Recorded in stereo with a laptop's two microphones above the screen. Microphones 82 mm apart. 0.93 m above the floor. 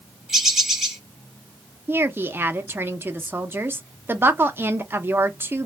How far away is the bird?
About 0.6 m.